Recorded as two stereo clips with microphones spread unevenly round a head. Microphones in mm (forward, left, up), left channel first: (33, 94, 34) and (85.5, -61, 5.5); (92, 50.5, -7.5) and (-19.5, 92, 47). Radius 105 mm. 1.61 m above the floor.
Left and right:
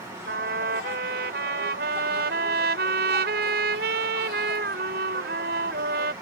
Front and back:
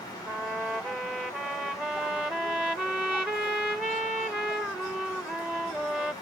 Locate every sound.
0.3 s a trumpet: 120° right